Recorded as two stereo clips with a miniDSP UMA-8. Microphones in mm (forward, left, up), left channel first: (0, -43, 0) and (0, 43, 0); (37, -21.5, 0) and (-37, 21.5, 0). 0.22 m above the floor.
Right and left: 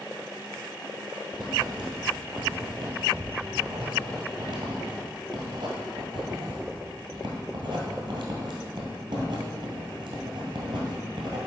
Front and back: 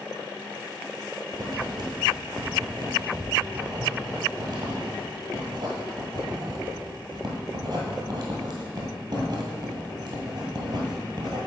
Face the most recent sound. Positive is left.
turn(degrees=120)